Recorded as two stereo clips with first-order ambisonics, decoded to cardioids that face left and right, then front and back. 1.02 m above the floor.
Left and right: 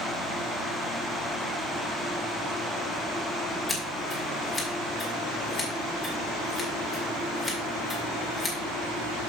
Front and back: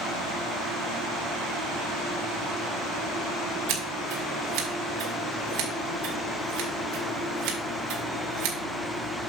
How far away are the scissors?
About 2 m.